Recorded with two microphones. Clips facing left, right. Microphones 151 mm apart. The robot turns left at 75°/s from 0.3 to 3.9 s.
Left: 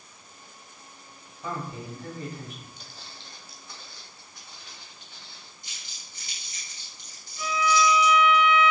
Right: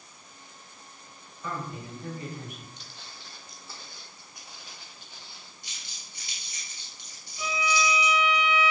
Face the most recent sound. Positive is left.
turn(degrees=-15)  # may be behind; listen again after turning